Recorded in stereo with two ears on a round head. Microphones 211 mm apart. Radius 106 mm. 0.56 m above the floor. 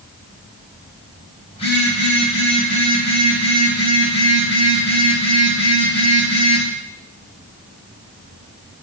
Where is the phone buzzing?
25° left (ahead or behind), 4 m.